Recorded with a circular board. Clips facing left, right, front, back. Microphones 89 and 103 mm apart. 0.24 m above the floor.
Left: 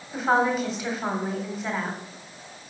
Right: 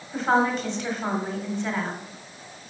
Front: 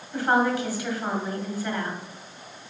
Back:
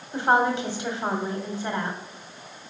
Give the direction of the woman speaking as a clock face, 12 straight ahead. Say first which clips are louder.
Even, back 1 dB; 6 o'clock.